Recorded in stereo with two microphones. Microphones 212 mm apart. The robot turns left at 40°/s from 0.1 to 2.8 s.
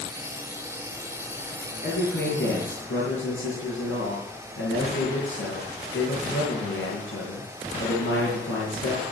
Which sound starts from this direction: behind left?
A man speaking, at 1.8 s.